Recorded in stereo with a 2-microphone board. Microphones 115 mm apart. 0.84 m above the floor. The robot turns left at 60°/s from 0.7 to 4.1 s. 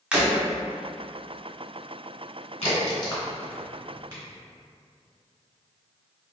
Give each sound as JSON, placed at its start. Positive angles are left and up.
{"t": 0.1, "sound": "breaking glass", "side_deg": -5, "distance_m": 1.1}
{"t": 2.6, "sound": "a crack", "side_deg": 60, "distance_m": 1.4}